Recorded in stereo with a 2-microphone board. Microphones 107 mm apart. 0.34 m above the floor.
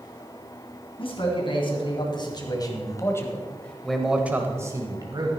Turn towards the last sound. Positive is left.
turn(degrees=-45)  # may be behind; listen again after turning